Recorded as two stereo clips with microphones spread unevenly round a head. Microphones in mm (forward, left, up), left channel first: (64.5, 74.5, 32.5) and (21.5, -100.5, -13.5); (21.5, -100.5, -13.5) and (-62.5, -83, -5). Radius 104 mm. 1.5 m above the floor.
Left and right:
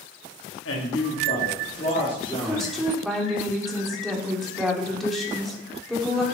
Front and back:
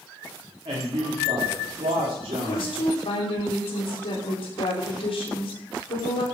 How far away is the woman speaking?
About 3.5 m.